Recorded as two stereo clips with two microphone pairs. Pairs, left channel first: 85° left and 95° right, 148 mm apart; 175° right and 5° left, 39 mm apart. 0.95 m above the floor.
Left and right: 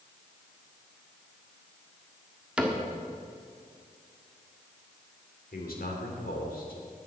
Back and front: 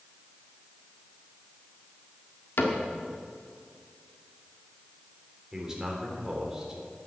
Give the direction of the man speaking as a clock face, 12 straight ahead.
9 o'clock.